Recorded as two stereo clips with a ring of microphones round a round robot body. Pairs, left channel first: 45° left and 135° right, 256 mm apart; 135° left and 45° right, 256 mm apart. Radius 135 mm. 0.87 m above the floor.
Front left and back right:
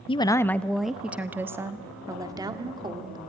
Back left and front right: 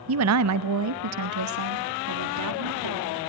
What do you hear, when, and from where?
0.1 s a woman speaking: 20° right, 0.6 m; by 3.2 s 60° right, 2.5 m